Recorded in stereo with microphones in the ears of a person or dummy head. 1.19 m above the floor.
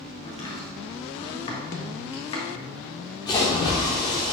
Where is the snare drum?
55° left (ahead or behind), 0.8 m.